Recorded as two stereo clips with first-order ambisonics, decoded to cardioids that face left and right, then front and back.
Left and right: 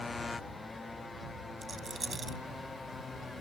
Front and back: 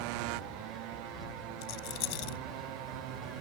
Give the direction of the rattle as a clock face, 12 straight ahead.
12 o'clock.